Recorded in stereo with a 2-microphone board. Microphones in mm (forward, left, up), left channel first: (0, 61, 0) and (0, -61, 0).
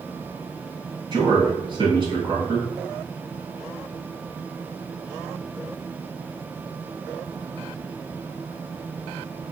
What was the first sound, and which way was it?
A man speaking, 45° right (ahead or behind).